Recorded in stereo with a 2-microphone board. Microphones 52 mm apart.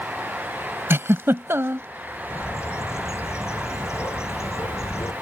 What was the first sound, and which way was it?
A giggle, 60° right (ahead or behind).